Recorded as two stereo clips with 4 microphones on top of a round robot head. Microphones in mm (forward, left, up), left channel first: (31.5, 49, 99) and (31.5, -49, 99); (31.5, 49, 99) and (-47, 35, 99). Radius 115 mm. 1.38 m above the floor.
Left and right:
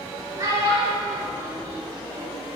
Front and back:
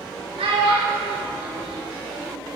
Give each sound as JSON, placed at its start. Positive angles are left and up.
{"t": 0.4, "sound": "a child speaking", "azimuth_deg": -150, "distance_m": 1.1}